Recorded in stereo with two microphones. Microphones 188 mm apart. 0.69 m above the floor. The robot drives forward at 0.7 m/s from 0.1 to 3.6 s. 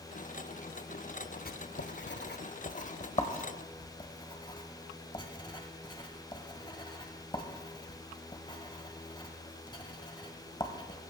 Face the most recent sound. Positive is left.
turn(degrees=25)  # may be behind; listen again after turning